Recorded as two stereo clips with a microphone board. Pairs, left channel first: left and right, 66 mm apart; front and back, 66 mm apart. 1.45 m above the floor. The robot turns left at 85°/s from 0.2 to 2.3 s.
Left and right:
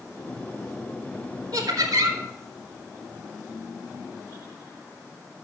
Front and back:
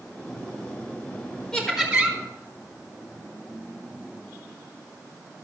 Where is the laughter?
80° right, 1.9 m; by 2.2 s 135° right, 1.9 m.